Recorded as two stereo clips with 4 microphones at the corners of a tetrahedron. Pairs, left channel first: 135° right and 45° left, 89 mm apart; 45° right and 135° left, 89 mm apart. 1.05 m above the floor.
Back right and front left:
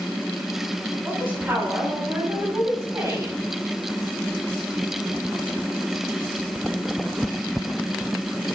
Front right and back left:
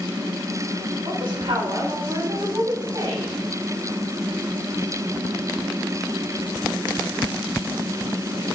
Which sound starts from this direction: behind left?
A woman speaking, at 1.0 s.